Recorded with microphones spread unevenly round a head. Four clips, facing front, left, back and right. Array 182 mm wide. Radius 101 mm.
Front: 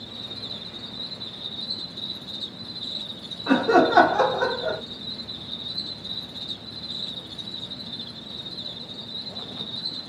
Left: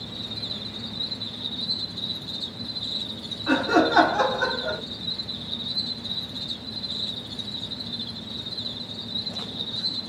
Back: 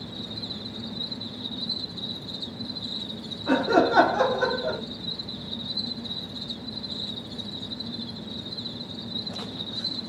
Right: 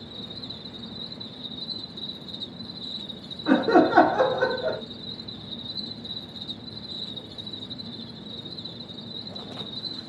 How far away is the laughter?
About 1.7 m.